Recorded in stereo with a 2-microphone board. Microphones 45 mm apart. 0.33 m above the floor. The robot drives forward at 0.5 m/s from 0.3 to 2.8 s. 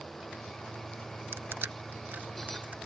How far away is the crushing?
About 0.8 m.